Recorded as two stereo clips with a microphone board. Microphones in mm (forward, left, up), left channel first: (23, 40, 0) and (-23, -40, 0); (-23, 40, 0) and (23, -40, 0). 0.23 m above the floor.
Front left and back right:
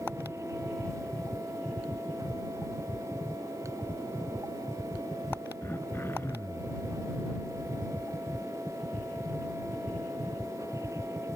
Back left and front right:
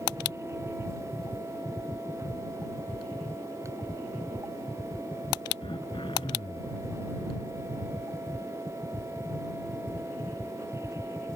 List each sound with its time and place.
5.6 s throat clearing: 125° left